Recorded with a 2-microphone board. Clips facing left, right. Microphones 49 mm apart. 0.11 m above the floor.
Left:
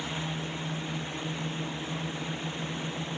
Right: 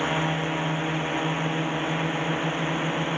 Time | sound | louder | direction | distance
0.0 | a drone | right 9 dB | 55° right (ahead or behind) | ?